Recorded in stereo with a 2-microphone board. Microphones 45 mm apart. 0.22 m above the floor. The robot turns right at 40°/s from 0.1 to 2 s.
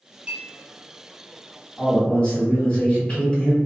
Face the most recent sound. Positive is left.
turn(degrees=20)  # may be behind; listen again after turning